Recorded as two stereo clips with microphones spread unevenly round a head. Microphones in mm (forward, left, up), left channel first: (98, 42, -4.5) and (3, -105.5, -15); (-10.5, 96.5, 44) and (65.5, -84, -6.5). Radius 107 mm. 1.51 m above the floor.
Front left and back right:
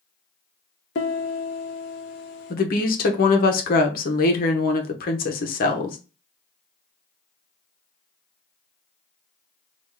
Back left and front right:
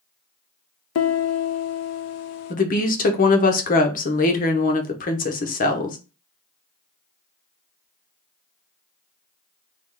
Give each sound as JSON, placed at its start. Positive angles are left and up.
{"t": 0.9, "sound": "a piano", "azimuth_deg": 100, "distance_m": 0.6}
{"t": 2.5, "sound": "a woman speaking", "azimuth_deg": 85, "distance_m": 0.7}